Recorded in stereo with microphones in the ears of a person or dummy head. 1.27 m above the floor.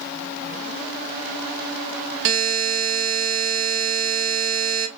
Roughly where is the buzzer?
Right.